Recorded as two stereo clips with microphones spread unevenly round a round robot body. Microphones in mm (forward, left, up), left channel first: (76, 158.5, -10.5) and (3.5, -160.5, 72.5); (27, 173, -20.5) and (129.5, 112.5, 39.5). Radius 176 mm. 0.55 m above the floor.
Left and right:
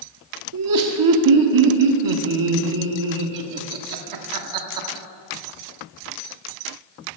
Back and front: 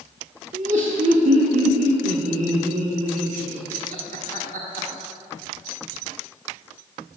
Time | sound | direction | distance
0.5 | laughter | 85° right | 1.3 m